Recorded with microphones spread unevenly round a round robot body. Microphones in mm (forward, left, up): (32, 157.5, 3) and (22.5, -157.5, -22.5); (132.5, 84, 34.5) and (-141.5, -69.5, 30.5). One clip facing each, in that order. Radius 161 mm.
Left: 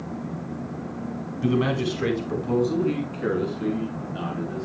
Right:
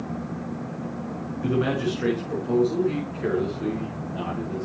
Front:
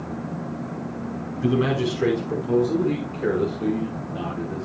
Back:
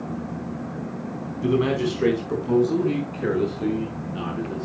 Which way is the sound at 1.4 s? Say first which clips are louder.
Left 1 dB, even; 115° left.